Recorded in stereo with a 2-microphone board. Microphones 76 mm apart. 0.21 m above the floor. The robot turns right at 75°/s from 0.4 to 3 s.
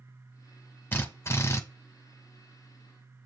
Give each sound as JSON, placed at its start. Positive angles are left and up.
{"t": 0.9, "sound": "a drill", "azimuth_deg": 55, "distance_m": 0.9}